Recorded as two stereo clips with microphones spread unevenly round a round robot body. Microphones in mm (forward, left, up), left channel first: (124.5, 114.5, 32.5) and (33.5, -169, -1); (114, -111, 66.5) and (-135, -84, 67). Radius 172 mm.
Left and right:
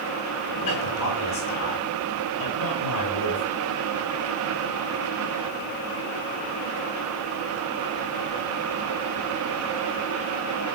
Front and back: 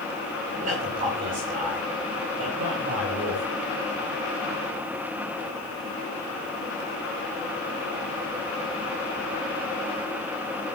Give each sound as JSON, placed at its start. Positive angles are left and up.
{"t": 0.5, "sound": "a man speaking", "azimuth_deg": 110, "distance_m": 10.0}